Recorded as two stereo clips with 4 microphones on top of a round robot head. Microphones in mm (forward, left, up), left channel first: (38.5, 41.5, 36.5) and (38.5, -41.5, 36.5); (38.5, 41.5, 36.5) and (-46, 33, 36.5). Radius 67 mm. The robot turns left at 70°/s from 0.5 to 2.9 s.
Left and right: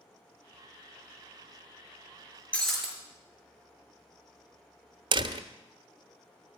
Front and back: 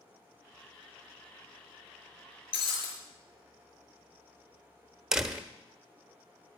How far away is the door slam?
About 0.9 m.